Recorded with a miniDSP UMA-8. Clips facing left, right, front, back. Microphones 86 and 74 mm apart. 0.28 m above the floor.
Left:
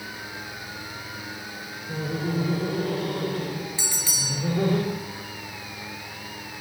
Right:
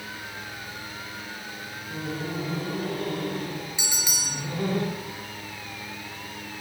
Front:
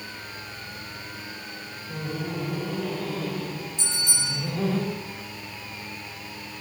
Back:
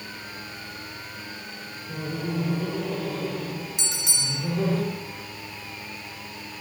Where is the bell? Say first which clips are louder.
Even, front 1 dB; 165° right, 1.9 m.